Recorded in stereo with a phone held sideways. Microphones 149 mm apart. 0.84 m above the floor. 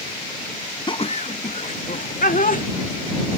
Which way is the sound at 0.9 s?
35° left (ahead or behind).